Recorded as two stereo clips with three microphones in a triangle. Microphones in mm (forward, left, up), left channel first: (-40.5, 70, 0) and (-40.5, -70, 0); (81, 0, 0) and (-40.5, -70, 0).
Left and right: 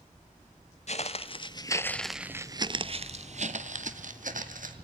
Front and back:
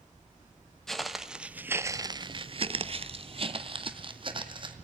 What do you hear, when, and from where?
0.9 s footsteps: 120° left, 0.8 m; by 4.7 s 95° right, 1.4 m